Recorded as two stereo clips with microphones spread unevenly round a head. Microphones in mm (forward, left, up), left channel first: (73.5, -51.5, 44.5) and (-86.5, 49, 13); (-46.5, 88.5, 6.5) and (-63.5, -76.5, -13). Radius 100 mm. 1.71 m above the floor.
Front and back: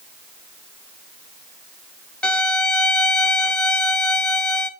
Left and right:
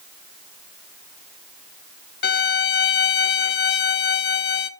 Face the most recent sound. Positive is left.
turn(degrees=50)